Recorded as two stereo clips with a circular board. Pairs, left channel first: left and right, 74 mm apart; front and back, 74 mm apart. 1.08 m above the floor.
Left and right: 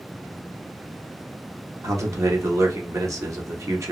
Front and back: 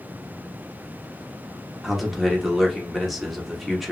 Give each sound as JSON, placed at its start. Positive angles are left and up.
{"t": 1.8, "sound": "a man speaking", "azimuth_deg": -95, "distance_m": 0.9}